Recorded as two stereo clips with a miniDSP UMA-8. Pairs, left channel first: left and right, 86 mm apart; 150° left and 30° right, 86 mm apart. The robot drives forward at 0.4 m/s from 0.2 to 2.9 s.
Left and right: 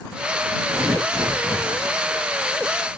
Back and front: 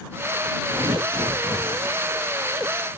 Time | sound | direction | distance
0.7 | tearing paper | 45° right | 9 m